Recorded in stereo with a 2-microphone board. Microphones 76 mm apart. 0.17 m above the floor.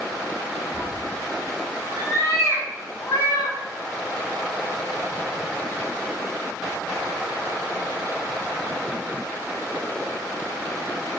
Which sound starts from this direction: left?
A cat meowing, at 0.7 s.